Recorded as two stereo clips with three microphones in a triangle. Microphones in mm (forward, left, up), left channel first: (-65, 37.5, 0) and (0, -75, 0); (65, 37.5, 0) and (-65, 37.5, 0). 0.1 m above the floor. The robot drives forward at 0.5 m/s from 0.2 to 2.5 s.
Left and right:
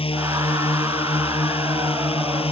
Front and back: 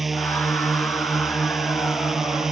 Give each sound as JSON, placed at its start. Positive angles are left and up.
{"t": 0.0, "sound": "a drone", "azimuth_deg": 90}